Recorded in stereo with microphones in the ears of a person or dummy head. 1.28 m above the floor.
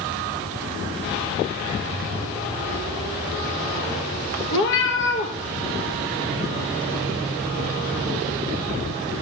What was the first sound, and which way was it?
A cat meowing, 60° left (ahead or behind).